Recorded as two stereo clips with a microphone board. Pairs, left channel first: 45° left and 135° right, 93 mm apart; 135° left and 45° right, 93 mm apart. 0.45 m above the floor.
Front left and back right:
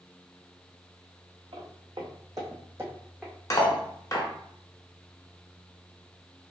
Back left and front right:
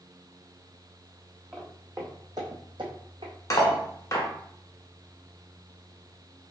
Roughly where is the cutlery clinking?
Left.